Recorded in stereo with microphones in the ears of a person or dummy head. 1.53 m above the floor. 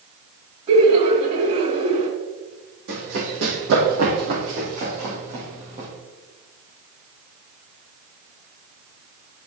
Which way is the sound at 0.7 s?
35° right (ahead or behind).